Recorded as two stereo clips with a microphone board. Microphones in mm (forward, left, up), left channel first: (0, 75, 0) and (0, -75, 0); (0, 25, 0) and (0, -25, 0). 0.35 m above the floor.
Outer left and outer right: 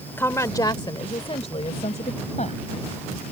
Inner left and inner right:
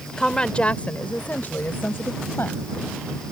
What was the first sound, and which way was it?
A woman speaking, 15° left (ahead or behind).